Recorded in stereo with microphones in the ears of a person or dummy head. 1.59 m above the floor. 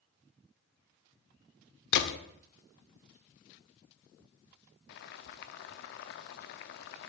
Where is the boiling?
60° left (ahead or behind), 0.5 m.